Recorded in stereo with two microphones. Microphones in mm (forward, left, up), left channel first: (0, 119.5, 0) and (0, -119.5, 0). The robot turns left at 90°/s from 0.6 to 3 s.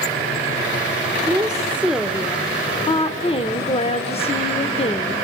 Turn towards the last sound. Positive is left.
turn(degrees=25)  # may be behind; listen again after turning